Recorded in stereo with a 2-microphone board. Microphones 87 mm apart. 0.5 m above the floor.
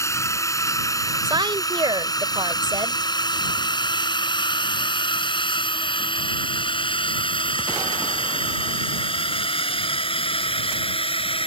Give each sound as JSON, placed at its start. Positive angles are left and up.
{"t": 0.0, "sound": "a drone", "side_deg": 30}
{"t": 1.2, "sound": "a woman speaking", "side_deg": -60}